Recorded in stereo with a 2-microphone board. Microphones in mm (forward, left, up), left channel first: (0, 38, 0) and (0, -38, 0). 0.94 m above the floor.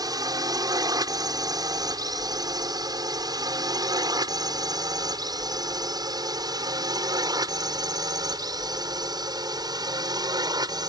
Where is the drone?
55° right (ahead or behind); by 10.9 s 60° right (ahead or behind).